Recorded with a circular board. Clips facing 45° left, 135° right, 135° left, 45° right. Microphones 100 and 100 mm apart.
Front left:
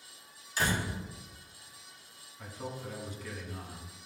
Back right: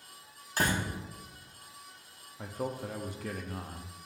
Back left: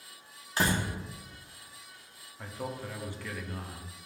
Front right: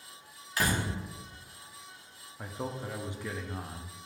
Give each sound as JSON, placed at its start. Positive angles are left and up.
{"t": 0.6, "sound": "a door slam", "azimuth_deg": -165, "distance_m": 1.2}
{"t": 2.4, "sound": "a man speaking", "azimuth_deg": -115, "distance_m": 0.8}